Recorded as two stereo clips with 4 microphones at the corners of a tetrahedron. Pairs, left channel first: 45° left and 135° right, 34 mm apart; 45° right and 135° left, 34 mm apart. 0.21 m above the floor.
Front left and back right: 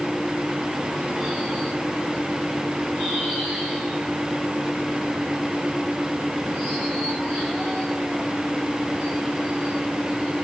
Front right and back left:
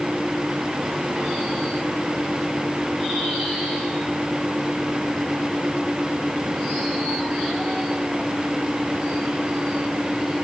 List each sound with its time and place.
Only background noise.